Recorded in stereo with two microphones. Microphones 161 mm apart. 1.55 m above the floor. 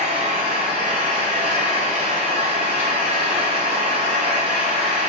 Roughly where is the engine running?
Right.